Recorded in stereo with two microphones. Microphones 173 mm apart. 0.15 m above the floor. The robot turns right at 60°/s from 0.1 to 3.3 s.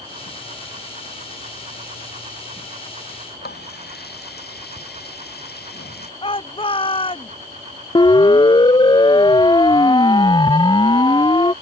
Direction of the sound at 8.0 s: 25° left (ahead or behind).